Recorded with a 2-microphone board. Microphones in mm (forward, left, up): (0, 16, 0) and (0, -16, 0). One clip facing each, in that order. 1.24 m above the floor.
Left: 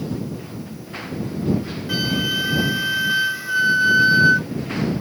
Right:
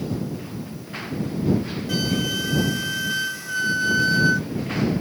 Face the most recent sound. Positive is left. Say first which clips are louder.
# left 3 dB
turn(degrees=25)  # may be behind; listen again after turning